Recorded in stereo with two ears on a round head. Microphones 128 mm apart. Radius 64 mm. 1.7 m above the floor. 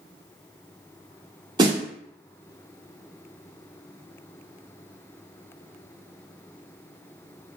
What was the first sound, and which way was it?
A snare drum, 30° right (ahead or behind).